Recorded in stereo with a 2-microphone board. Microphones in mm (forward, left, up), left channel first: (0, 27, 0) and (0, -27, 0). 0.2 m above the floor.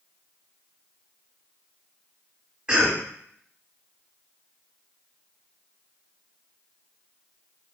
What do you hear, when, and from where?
2.7 s a cough: 20° right (ahead or behind), 1.0 m